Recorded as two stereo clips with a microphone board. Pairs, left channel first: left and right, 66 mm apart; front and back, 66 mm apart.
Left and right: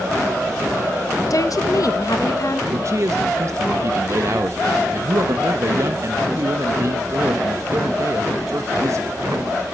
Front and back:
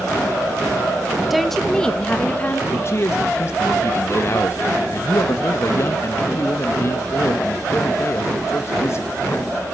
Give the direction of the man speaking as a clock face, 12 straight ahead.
2 o'clock.